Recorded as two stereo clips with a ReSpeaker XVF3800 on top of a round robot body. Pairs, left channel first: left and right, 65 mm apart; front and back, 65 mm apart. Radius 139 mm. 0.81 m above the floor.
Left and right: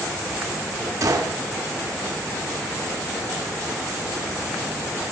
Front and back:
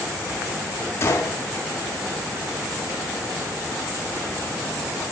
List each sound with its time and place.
1.0 s a gunshot: 50° right, 0.8 m